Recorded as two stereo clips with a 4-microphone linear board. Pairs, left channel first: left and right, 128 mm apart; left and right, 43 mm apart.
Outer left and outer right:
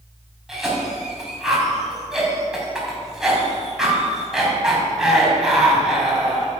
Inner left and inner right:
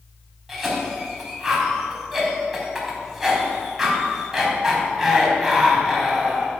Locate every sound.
0.5 s a cough: 5° right (ahead or behind), 4 m